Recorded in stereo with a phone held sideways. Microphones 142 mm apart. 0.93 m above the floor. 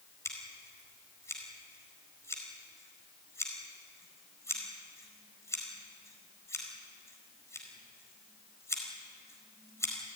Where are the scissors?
20° left (ahead or behind), 4.5 m.